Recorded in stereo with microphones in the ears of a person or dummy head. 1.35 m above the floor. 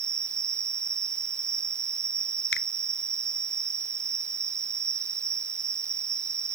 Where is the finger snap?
80° left.